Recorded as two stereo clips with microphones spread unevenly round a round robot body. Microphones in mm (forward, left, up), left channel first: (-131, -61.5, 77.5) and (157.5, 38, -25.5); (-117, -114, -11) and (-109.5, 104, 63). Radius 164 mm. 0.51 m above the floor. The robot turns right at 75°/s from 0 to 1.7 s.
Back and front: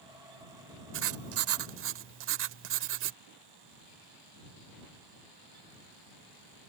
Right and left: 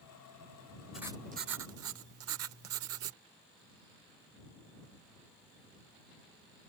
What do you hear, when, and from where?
0.9 s writing: 10° right; by 3.2 s 45° left